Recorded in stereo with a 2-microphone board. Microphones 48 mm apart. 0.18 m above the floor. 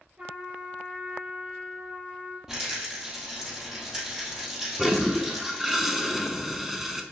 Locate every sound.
0.2 s a trumpet: 25° right (ahead or behind), 4 m
2.5 s a rattle: 10° right (ahead or behind), 2.5 m
4.8 s a toilet flushing: 5° right (ahead or behind), 0.9 m